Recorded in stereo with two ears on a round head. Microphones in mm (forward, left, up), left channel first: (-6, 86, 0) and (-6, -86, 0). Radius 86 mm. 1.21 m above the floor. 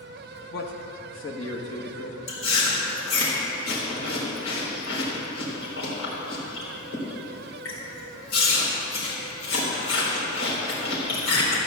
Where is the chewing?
80° left, 3.5 m.